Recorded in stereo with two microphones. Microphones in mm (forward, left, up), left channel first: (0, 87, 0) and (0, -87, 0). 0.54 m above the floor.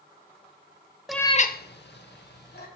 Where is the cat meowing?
Centre (ahead or behind), 0.5 m; by 2.7 s 70° left (ahead or behind), 1.8 m.